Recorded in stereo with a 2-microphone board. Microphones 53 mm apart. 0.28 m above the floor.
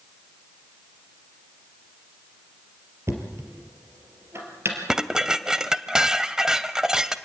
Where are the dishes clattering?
10° right (ahead or behind), 0.9 m.